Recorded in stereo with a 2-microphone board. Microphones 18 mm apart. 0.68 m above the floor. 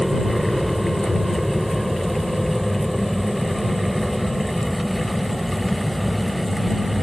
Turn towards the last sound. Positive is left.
turn(degrees=-30)  # may be behind; listen again after turning